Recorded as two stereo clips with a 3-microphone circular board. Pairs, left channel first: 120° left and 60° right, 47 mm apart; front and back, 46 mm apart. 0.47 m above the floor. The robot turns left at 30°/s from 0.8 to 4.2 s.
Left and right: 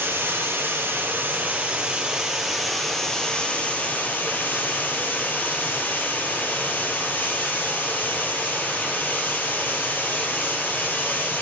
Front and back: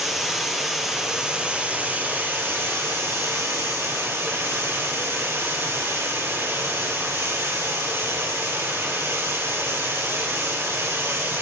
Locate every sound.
0.0 s running water: 90° right, 2.5 m; by 11.4 s 170° left, 2.5 m